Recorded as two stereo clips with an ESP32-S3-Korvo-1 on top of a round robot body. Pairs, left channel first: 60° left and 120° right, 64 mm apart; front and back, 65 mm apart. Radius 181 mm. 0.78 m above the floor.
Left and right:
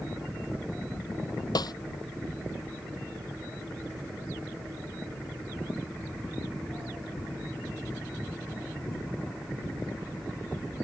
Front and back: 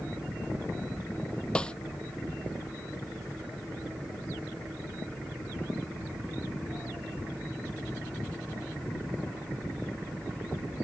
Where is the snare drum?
75° left.